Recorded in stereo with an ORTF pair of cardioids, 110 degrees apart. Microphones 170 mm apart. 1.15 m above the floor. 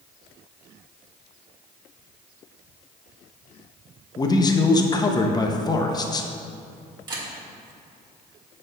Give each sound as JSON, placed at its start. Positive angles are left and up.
{"t": 4.2, "sound": "a man speaking", "azimuth_deg": 20, "distance_m": 0.8}
{"t": 7.1, "sound": "a camera shutter", "azimuth_deg": -25, "distance_m": 1.7}